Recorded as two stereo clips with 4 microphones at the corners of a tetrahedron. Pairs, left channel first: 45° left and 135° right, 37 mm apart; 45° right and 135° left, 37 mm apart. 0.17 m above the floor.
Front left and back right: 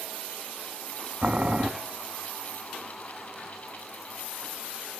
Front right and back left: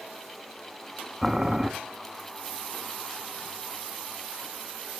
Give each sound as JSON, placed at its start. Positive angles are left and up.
{"t": 1.2, "sound": "boiling", "azimuth_deg": -160, "distance_m": 1.0}